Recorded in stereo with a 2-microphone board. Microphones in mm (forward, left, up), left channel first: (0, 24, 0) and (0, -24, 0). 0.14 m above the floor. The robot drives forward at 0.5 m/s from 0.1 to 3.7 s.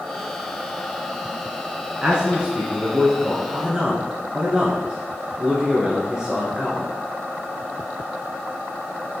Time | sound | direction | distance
2.0 | a man speaking | 20° right (ahead or behind) | 1.3 m